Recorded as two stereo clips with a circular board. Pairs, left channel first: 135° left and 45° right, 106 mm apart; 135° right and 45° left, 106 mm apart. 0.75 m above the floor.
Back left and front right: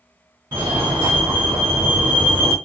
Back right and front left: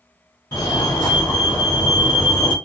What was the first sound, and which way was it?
A fire alarm, 100° right.